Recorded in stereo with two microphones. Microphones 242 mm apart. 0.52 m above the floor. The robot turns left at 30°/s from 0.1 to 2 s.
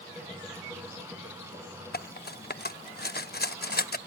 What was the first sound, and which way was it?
Cutlery clinking, 40° left (ahead or behind).